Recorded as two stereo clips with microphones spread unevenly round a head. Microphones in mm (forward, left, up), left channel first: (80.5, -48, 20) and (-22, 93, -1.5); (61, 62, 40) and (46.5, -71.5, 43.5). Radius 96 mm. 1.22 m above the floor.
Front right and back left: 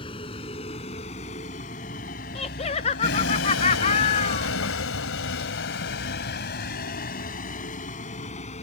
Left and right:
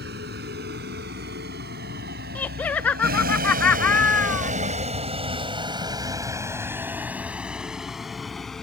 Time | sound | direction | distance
0.0 | a vehicle | 120° right | ?
2.4 | laughter | 5° left | ?